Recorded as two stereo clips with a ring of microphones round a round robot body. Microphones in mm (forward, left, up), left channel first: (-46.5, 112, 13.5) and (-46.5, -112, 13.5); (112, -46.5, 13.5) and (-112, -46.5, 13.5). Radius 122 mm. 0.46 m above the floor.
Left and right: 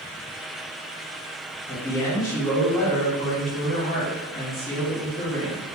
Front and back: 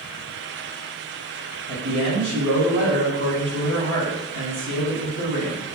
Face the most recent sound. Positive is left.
turn(degrees=155)